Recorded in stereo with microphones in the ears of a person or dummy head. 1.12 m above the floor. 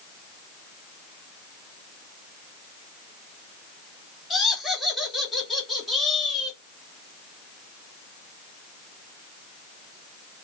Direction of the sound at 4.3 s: Centre (ahead or behind).